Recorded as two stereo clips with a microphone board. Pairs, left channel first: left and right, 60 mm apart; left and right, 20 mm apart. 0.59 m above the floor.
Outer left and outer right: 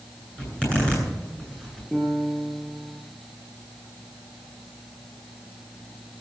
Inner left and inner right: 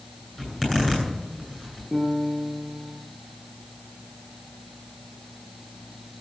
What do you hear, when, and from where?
0.4 s a zipper: 15° left (ahead or behind), 9.5 m
1.9 s a piano: 5° right (ahead or behind), 6.5 m